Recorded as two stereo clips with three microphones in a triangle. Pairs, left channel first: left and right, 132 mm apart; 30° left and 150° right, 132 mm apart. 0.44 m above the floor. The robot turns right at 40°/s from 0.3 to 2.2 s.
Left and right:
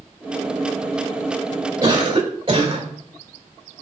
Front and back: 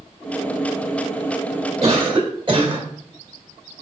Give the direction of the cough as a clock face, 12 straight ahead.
5 o'clock.